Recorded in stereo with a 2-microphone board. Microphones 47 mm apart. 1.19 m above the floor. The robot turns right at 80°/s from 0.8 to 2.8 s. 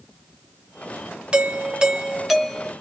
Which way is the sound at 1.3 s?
25° right (ahead or behind).